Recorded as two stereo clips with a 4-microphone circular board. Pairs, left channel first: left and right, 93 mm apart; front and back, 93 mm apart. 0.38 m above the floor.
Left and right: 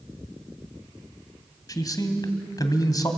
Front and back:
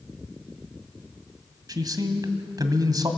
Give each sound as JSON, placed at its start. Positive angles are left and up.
{"t": 1.7, "sound": "a man speaking", "azimuth_deg": 135, "distance_m": 1.9}